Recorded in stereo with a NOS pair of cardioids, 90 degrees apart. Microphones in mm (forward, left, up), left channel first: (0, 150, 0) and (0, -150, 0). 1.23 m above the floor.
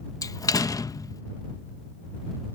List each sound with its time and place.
0.2 s a door slam: 10° left